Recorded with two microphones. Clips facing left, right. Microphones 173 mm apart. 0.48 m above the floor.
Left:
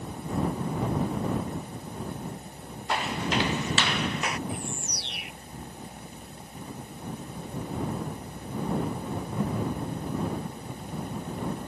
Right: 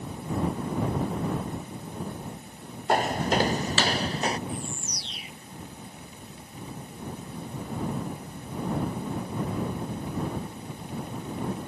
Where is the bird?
65° left (ahead or behind).